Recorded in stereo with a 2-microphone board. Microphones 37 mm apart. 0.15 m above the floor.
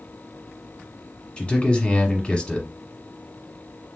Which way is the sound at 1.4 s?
30° left (ahead or behind).